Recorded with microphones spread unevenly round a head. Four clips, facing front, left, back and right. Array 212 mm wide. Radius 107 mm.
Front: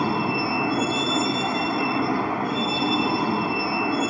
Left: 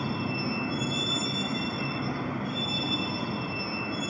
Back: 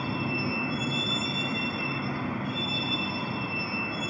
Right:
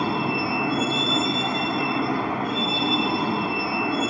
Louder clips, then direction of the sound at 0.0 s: Right 7 dB, front 7 dB; 35° right.